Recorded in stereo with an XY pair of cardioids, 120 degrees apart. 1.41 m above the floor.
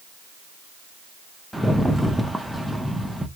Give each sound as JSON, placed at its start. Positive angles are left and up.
{"t": 1.5, "sound": "a rattle", "azimuth_deg": 0, "distance_m": 0.9}